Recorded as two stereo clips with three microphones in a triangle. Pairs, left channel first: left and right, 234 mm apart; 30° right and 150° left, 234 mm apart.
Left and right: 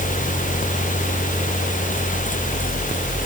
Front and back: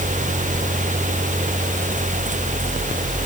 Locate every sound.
Only background noise.